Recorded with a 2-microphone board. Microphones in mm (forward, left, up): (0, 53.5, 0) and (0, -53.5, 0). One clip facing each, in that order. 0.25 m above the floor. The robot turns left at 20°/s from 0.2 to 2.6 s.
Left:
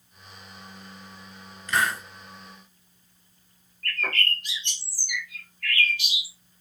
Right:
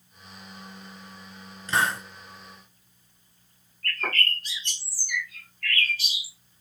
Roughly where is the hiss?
Right.